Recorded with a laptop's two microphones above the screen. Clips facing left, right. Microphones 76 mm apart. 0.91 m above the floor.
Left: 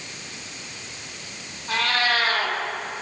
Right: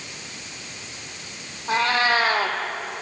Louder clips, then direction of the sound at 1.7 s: Right 3 dB; 25° right (ahead or behind).